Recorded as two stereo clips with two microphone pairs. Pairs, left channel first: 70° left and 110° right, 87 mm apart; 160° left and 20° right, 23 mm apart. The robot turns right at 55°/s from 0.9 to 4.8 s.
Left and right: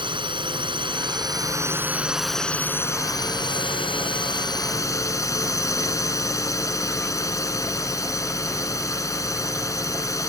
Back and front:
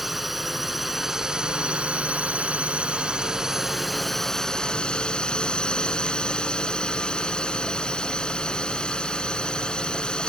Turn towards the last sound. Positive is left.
turn(degrees=120)